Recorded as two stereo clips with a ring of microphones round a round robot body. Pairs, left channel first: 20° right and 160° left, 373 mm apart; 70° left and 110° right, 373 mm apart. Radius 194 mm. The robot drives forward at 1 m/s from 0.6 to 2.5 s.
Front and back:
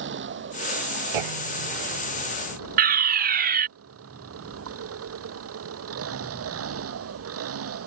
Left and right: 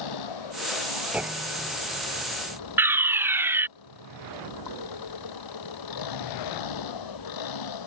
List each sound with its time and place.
0.0 s an engine running: 95° left; by 7.9 s 100° left
1.1 s a clunk: 160° left
2.8 s a fire alarm: 170° left